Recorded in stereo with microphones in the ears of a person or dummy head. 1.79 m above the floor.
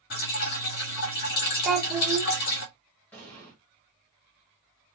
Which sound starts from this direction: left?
Dripping, at 0.1 s.